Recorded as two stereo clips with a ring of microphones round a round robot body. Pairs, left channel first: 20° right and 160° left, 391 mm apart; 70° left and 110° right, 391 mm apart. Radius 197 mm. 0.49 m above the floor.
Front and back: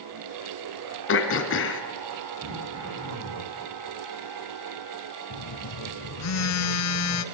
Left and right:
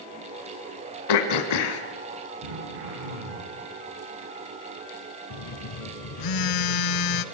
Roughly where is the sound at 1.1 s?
Ahead left.